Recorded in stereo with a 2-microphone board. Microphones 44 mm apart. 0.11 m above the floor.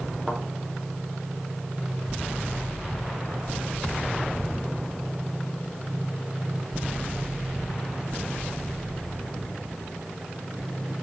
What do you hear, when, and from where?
0.3 s a thud: centre (ahead or behind), 4 m